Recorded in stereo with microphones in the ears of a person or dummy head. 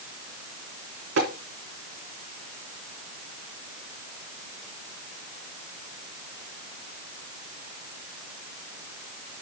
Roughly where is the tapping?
Right.